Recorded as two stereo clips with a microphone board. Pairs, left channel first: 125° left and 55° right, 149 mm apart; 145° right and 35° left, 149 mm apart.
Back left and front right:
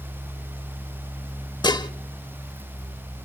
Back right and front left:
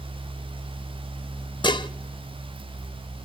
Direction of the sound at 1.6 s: 170° left.